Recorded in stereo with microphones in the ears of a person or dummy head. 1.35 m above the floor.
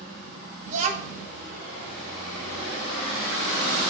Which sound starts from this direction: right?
A child speaking, at 0.7 s.